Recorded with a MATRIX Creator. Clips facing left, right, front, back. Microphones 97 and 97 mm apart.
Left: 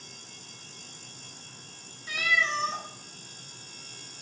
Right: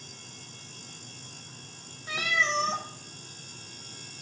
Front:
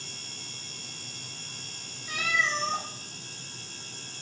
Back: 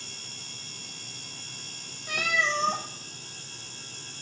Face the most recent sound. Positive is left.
turn(degrees=-155)